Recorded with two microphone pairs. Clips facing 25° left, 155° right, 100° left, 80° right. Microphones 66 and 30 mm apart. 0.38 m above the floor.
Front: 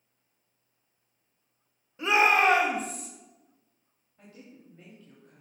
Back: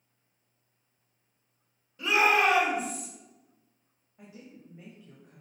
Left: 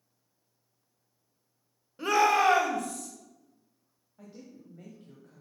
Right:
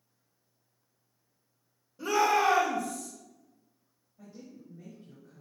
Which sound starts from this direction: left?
A shout, at 2.0 s.